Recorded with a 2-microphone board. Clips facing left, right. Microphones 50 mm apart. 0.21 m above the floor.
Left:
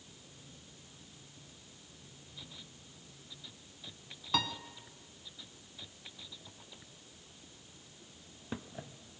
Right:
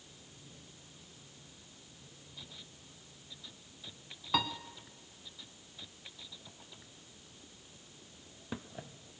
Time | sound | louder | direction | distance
4.3 | a piano | right 1 dB | 10° right (ahead or behind) | 0.7 m